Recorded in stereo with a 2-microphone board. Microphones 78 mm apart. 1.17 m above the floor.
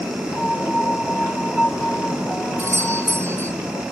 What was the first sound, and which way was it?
A piano, 15° left (ahead or behind).